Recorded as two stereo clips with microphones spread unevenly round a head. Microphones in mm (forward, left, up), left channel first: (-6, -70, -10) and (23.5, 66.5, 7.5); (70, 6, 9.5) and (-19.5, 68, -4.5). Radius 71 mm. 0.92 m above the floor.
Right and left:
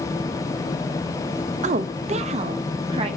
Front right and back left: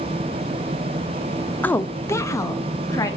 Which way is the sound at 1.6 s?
45° left.